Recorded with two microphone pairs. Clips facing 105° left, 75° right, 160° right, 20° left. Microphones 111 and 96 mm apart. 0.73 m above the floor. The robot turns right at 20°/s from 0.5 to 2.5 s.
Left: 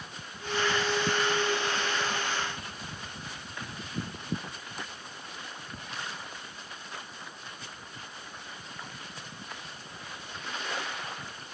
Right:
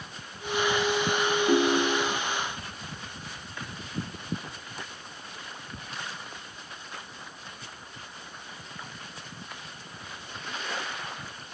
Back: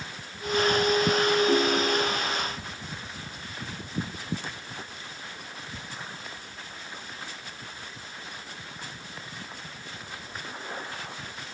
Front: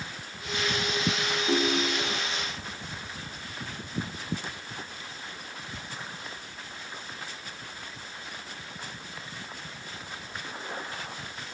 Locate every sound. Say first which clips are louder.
1.5 s a ringtone: right 8 dB, back 3 dB; 70° right; by 2.2 s 55° right